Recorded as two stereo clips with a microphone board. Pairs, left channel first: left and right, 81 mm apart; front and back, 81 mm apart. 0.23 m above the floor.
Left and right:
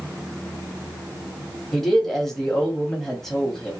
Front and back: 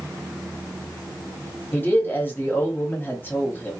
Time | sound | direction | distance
1.7 | a man speaking | 10° left | 1.2 m